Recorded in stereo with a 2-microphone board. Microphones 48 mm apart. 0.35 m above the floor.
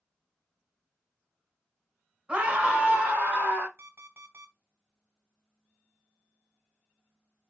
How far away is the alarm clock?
About 1.5 m.